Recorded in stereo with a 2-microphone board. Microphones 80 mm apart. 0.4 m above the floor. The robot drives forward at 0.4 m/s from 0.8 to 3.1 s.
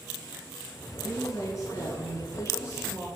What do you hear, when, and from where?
1.0 s a woman speaking: 45° left (ahead or behind), 4.5 m; by 3.1 s 35° left (ahead or behind), 5 m